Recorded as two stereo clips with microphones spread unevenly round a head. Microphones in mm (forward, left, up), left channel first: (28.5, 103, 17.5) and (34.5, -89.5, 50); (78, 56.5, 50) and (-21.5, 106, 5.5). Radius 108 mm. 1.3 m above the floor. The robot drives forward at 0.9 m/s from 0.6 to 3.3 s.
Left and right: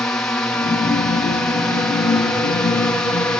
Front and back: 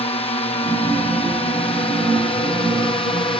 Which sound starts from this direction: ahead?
A drone, at 0.0 s.